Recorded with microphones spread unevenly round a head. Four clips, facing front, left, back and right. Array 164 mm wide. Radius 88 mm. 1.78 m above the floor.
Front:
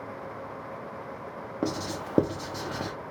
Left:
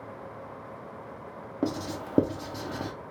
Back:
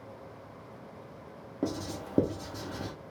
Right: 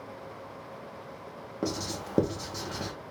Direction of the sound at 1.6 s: 40° left.